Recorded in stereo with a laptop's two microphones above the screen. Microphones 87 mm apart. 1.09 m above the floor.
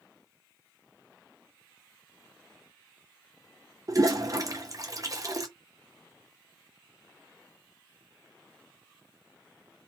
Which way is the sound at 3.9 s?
40° right (ahead or behind).